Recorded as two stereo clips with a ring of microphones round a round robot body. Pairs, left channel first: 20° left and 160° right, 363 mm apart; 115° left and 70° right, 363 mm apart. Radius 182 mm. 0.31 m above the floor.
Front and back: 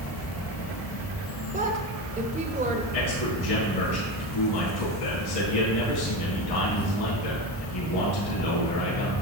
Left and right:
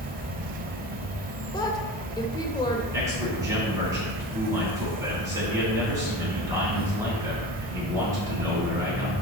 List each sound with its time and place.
0.0 s an insect: 10° right, 1.1 m
1.5 s a woman speaking: 170° left, 0.9 m
2.9 s a man speaking: 15° left, 4 m